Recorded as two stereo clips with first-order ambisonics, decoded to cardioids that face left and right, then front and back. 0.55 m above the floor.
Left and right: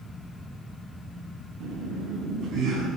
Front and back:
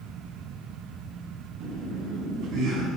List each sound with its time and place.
1.6 s laughter: 140° right, 5 m; by 2.9 s 145° right, 6 m